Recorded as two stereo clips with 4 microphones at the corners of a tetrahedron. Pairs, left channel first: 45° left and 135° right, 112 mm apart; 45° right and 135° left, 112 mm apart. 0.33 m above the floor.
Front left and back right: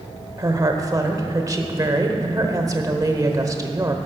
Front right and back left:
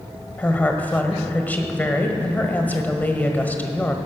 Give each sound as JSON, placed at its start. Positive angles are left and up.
{"t": 0.4, "sound": "a woman speaking", "azimuth_deg": -110, "distance_m": 1.2}